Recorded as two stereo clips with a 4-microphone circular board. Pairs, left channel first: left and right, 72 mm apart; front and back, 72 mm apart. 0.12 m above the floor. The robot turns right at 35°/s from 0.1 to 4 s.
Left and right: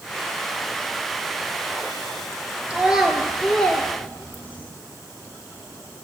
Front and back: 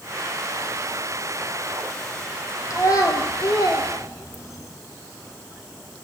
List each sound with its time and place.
2.7 s a child speaking: 20° right, 1.1 m; by 4.7 s 25° left, 1.1 m